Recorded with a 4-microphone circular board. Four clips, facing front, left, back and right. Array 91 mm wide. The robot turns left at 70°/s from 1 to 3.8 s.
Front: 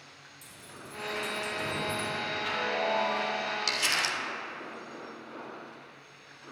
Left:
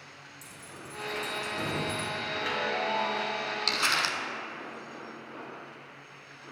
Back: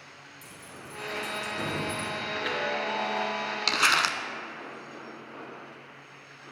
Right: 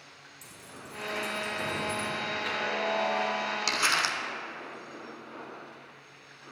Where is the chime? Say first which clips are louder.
Left 3 dB, back 2 dB; 170° left, 2 m; by 3.4 s 100° left, 2 m.